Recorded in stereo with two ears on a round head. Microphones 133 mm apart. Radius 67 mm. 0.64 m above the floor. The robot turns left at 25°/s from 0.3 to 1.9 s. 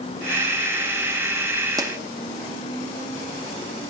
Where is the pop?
25° right (ahead or behind), 0.6 m.